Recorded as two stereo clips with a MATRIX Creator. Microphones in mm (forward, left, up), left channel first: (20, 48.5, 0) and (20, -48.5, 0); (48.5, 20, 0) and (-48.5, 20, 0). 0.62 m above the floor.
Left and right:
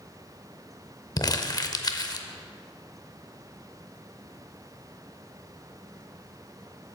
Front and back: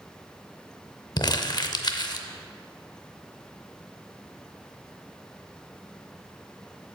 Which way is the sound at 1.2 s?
45° left.